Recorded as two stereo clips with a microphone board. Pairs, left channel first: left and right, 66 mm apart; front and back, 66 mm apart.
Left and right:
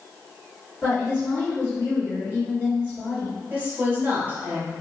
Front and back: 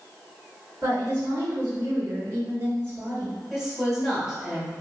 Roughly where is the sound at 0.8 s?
Behind left.